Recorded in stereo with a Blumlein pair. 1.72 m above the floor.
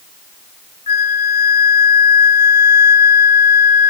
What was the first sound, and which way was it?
A flute, 70° left.